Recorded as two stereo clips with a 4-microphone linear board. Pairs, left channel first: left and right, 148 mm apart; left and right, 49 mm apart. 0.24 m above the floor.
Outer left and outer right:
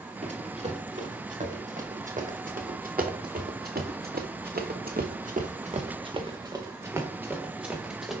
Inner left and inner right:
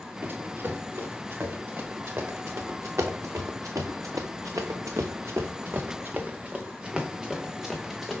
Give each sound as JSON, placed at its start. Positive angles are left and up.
{"t": 0.2, "sound": "running footsteps", "side_deg": -45, "distance_m": 3.0}